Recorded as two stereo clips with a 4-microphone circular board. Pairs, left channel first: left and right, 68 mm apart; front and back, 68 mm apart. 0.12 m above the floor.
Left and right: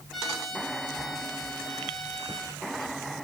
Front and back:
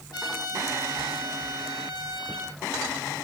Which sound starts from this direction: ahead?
A trumpet, at 0.1 s.